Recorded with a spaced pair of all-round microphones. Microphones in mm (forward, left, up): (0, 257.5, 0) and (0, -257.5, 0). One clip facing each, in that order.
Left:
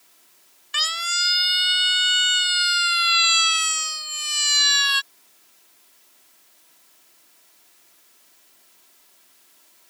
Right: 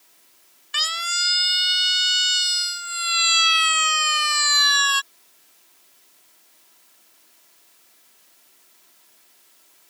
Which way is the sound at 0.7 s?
Centre (ahead or behind).